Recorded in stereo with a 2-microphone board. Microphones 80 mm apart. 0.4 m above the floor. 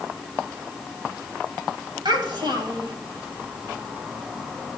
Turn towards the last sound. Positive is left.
turn(degrees=-70)  # may be behind; listen again after turning